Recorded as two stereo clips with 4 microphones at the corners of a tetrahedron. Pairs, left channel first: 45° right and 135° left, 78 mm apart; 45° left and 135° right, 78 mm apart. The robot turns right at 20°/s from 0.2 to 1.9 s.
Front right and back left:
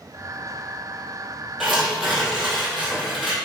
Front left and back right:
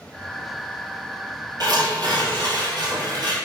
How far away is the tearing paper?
About 1.9 m.